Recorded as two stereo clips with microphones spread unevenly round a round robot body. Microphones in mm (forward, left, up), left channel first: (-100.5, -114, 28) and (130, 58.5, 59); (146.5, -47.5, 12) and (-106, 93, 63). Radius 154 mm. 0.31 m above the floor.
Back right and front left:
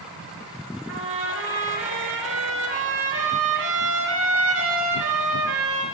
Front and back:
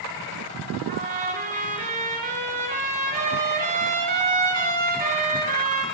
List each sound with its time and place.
0.9 s a trumpet: 90° left, 6 m